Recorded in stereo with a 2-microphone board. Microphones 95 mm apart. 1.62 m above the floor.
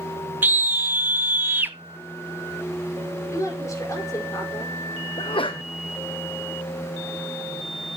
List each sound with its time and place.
0.4 s a scream: 20° right (ahead or behind), 0.5 m
3.3 s a woman speaking: 35° left (ahead or behind), 5 m
5.2 s a sneeze: 65° left (ahead or behind), 0.9 m